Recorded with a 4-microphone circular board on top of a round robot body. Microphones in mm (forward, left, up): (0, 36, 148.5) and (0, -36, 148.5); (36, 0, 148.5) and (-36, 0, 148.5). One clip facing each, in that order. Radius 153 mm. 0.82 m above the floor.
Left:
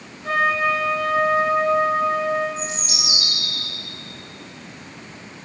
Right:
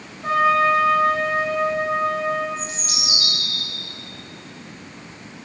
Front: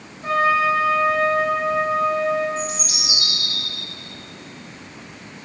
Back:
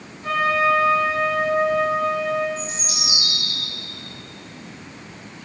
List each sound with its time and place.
0.2 s a trumpet: 55° right, 2.5 m
2.6 s a bird: 25° left, 2.0 m